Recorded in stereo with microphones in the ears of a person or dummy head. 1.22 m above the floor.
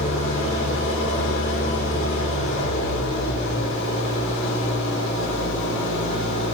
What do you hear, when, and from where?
0.0 s an engine running: 75° left (ahead or behind), 3.5 m